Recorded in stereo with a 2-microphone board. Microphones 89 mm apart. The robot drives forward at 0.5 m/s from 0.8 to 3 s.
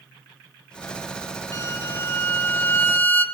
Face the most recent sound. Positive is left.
turn(degrees=20)  # may be behind; listen again after turning